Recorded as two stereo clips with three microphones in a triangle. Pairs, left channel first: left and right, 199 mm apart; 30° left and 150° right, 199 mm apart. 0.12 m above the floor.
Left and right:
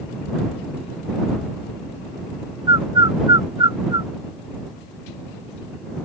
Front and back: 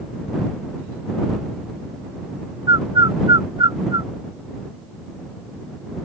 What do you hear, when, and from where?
2.7 s a bird: 120° right